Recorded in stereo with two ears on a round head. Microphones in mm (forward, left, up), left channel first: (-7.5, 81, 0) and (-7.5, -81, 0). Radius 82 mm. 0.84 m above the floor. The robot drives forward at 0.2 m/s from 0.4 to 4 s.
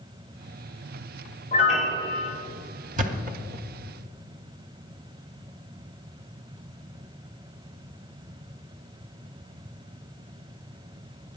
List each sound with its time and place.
1.5 s a piano: 40° left (ahead or behind), 3 m
3.0 s a thud: 45° right (ahead or behind), 0.8 m; by 3.6 s 50° right (ahead or behind), 0.8 m